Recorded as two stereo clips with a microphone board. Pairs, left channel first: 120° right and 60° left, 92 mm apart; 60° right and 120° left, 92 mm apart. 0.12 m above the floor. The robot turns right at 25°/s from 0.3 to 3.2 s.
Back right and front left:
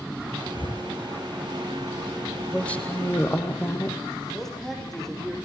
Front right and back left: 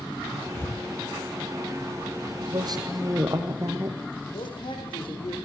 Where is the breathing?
125° right, 0.6 m; by 0.9 s 115° right, 0.6 m.